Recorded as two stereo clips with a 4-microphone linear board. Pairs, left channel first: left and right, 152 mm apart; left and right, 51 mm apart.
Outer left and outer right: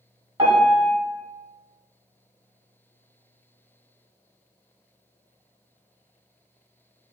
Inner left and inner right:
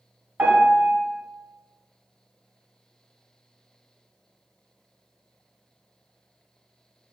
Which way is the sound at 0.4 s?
35° right (ahead or behind).